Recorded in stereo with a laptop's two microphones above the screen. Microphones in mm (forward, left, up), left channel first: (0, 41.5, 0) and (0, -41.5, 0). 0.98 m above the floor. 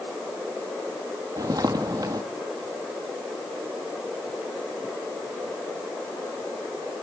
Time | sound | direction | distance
1.4 | footsteps | 50° right (ahead or behind) | 1.8 m